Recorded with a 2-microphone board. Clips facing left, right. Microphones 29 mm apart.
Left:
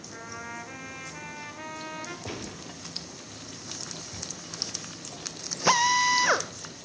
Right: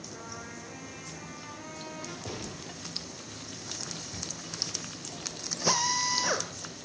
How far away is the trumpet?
About 1.6 m.